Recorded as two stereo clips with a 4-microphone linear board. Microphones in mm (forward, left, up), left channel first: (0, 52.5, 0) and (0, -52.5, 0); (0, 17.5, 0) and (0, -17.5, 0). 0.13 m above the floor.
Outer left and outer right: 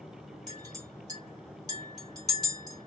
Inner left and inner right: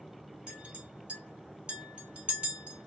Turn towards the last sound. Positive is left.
turn(degrees=-35)  # may be behind; listen again after turning